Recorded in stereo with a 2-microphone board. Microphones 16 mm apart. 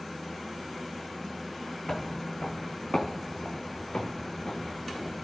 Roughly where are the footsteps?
Left.